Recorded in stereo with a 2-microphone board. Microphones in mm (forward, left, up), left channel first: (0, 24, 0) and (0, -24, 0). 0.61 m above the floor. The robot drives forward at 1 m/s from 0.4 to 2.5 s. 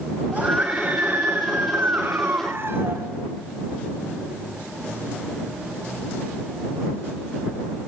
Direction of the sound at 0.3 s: 35° right (ahead or behind).